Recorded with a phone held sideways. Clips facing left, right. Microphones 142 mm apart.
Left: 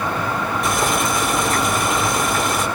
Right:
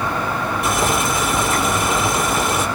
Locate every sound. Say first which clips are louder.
0.6 s boiling: right 1 dB; centre (ahead or behind), 3.5 m